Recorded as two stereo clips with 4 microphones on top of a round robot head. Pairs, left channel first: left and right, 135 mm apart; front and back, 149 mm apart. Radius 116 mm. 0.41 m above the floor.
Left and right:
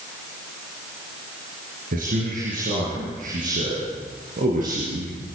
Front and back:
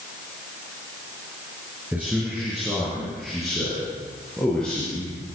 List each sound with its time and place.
1.9 s a man speaking: 95° right, 7.5 m; by 5.1 s 85° right, 9.5 m